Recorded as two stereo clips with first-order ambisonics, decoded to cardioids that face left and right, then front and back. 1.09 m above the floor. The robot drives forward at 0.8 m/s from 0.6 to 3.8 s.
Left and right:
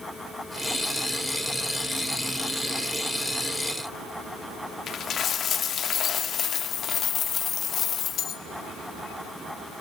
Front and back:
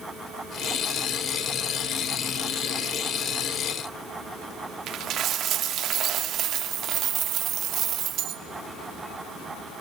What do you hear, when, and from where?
4.9 s a dropped coin: 140° left, 0.8 m